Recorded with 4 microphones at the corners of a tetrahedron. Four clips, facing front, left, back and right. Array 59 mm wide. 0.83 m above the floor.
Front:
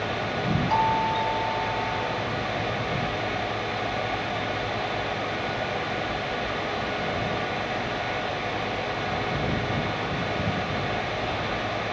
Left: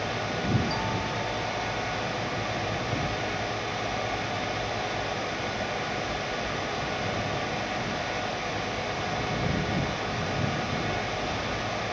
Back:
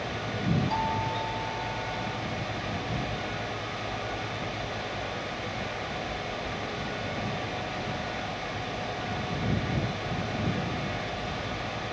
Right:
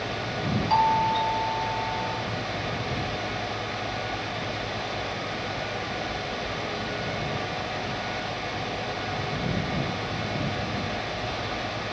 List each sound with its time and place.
0.7 s a doorbell: 60° right